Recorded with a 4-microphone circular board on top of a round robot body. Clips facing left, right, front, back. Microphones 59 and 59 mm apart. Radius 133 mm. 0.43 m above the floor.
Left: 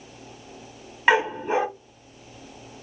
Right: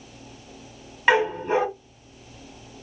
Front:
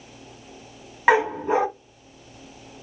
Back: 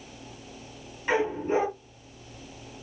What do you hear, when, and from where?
1.1 s a dog barking: 5° left, 1.0 m